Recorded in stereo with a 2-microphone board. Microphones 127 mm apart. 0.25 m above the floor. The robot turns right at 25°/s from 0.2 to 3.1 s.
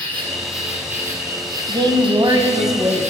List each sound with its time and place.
0.0 s an insect: 170° left, 2.5 m; by 3.1 s 120° right, 2.5 m
1.7 s a woman speaking: 70° right, 1.2 m; by 3.1 s 35° right, 1.2 m